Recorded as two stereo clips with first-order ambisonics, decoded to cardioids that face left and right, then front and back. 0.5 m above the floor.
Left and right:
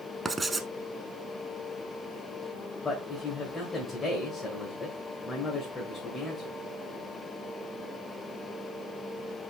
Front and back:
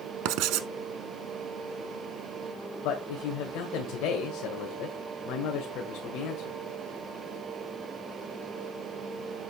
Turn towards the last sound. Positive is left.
turn(degrees=20)